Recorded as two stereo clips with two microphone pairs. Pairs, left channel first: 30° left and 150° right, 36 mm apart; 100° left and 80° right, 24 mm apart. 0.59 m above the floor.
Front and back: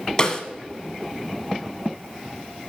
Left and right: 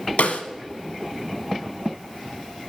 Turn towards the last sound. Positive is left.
turn(degrees=100)